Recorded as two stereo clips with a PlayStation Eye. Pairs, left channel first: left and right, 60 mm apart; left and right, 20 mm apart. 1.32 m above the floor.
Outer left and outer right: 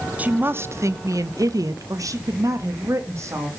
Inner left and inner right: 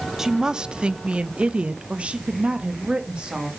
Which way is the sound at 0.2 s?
25° right (ahead or behind).